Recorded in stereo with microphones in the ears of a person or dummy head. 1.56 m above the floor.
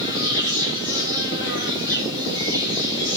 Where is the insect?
20° right (ahead or behind), 3 m.